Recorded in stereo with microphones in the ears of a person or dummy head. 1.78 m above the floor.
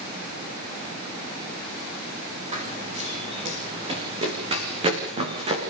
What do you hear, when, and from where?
2.5 s running footsteps: 30° right (ahead or behind), 4 m